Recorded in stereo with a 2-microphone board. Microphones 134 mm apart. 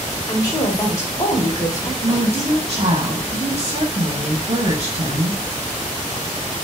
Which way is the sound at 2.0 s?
55° right (ahead or behind).